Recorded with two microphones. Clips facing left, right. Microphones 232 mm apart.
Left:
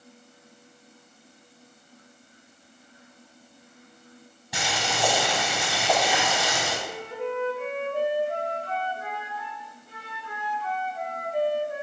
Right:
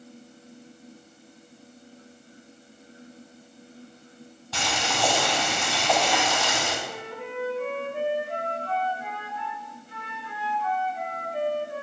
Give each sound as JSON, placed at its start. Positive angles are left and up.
{"t": 4.5, "sound": "boiling", "side_deg": 15, "distance_m": 2.5}
{"t": 6.8, "sound": "a flute", "side_deg": 45, "distance_m": 1.7}